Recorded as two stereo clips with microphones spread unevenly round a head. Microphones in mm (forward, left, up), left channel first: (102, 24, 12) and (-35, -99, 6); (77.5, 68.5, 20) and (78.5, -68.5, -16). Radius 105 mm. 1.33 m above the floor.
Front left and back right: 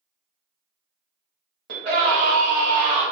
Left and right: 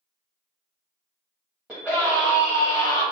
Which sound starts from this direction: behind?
A scream, at 1.7 s.